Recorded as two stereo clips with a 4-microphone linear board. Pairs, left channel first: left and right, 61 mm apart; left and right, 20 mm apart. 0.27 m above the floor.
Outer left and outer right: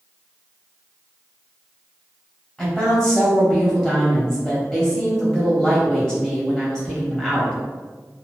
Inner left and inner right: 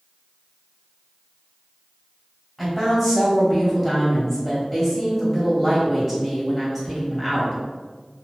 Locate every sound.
2.6 s a woman speaking: 15° left (ahead or behind), 1.1 m